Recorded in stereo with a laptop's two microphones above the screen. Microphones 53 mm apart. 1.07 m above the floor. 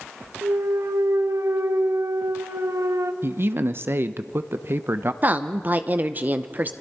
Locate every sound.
0.4 s a clunk: 75° right (ahead or behind), 0.7 m
3.2 s a man speaking: 50° right (ahead or behind), 0.6 m
5.2 s a woman speaking: 35° right (ahead or behind), 0.7 m